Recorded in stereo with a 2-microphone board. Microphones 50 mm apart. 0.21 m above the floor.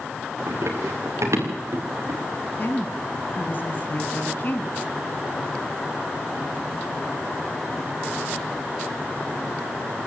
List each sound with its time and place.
0.5 s running footsteps: 75° right (ahead or behind), 5 m
2.6 s a woman speaking: 45° left (ahead or behind), 2 m